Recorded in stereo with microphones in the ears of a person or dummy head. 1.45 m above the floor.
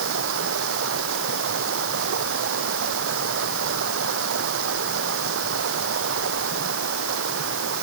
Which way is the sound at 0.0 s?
65° right (ahead or behind).